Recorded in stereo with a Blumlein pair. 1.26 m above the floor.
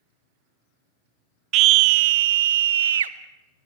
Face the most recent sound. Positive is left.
turn(degrees=-65)